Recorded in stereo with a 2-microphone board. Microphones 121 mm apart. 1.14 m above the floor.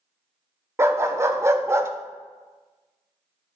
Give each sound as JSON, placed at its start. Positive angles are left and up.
{"t": 0.8, "sound": "a dog barking", "side_deg": -20, "distance_m": 0.9}